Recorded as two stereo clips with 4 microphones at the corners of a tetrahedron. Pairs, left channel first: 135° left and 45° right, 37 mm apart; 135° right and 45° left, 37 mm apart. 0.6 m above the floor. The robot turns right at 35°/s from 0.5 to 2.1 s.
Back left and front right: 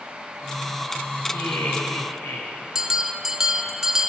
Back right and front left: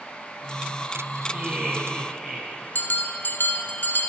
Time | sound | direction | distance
1.3 | laughter | 110° left | 5.5 m
2.8 | a bell | 120° right | 0.8 m